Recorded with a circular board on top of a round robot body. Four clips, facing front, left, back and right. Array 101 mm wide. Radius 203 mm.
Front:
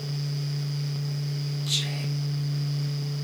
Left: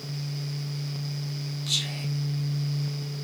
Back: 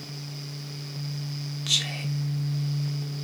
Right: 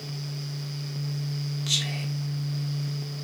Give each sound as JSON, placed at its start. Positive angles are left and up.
{"t": 1.7, "sound": "whispering", "azimuth_deg": -155, "distance_m": 1.6}